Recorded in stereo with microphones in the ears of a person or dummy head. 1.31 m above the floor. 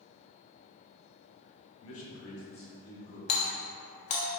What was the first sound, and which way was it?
A man speaking, 65° left (ahead or behind).